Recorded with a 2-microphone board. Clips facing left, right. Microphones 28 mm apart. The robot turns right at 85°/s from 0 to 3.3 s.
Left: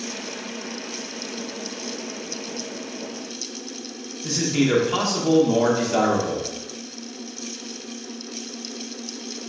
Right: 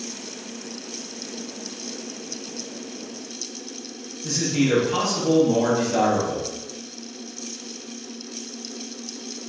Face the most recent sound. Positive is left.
turn(degrees=20)  # may be behind; listen again after turning